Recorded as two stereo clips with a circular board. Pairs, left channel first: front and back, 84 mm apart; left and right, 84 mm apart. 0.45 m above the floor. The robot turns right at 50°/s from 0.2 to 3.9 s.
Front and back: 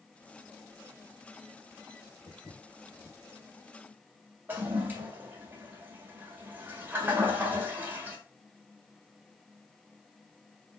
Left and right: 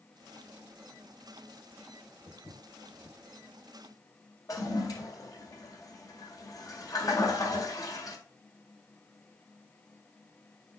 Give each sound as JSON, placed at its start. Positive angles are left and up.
{"t": 2.3, "sound": "footsteps", "azimuth_deg": 35, "distance_m": 5.0}
{"t": 4.5, "sound": "a toilet flushing", "azimuth_deg": 120, "distance_m": 1.8}